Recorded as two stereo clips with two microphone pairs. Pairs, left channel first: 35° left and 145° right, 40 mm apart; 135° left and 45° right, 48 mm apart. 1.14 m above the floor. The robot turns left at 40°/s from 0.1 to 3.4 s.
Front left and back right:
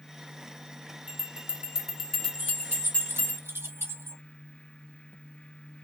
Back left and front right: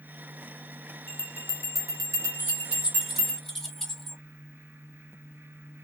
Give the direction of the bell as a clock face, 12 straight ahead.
6 o'clock.